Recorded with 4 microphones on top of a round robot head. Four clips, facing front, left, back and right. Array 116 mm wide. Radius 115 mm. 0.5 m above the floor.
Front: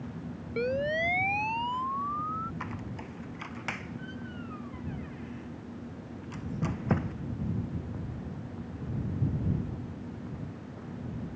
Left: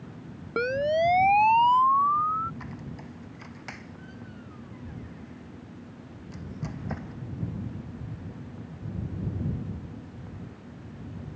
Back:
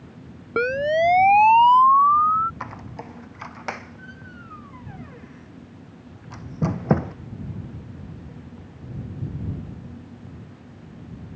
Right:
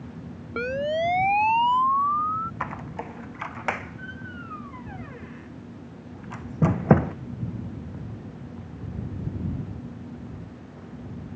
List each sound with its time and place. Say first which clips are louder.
0.6 s a siren: left 1 dB, back 9 dB; 165° left; by 2.5 s 175° left
2.6 s a squeak: right 8 dB, back 4 dB; 115° right